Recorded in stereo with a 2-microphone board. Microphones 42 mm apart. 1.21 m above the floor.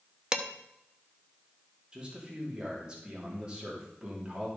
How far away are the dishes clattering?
About 0.9 m.